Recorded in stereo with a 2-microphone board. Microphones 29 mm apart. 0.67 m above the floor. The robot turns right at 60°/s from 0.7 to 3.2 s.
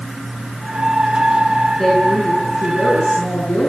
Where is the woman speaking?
10° left, 8 m; by 3.7 s 95° left, 8 m.